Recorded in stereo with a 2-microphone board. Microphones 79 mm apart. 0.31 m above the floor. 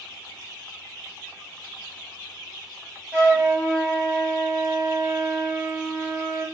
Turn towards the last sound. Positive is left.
turn(degrees=-20)  # may be behind; listen again after turning